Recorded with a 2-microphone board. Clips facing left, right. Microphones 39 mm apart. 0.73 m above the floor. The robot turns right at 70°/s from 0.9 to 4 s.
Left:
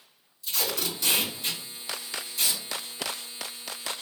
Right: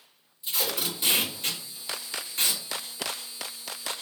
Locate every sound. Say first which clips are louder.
0.4 s tape being pulled: even; 20° right (ahead or behind), 2 m; by 2.6 s 35° right (ahead or behind), 2 m